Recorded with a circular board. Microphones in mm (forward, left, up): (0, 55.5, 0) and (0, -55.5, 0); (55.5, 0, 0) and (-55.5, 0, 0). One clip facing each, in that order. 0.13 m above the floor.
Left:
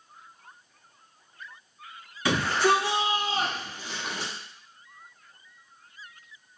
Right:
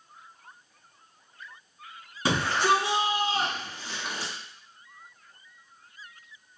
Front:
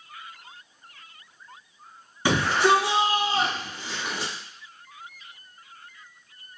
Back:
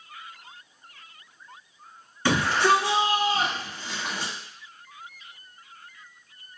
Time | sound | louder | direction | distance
2.2 | a shout | left 1 dB, front 1 dB | 65° right | 1.5 m